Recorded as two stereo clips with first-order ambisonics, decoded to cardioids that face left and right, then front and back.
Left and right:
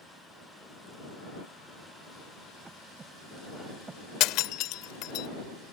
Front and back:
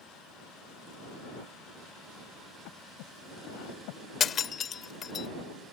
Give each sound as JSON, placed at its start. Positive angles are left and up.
{"t": 2.6, "sound": "breathing", "azimuth_deg": -15}
{"t": 4.2, "sound": "breaking glass", "azimuth_deg": 60}